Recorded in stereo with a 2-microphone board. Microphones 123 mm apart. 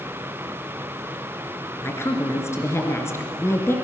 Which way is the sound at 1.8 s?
20° left (ahead or behind).